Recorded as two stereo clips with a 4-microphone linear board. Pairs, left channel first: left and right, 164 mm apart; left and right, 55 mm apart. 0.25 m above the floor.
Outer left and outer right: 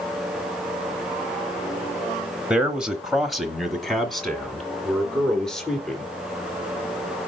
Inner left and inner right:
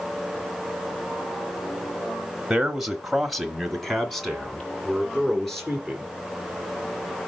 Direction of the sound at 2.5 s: 5° right (ahead or behind).